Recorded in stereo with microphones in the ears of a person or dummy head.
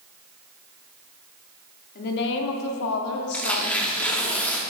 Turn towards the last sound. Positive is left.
turn(degrees=5)  # may be behind; listen again after turning